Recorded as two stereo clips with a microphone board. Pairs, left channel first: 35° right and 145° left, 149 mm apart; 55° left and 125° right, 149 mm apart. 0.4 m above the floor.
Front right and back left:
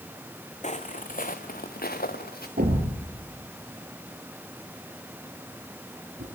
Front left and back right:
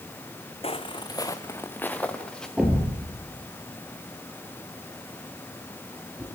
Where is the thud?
150° left, 4.5 m.